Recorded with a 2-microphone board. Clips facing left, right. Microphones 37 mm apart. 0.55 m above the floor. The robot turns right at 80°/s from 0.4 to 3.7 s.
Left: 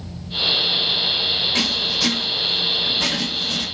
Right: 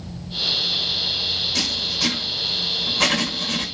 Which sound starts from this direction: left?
Writing, at 1.6 s.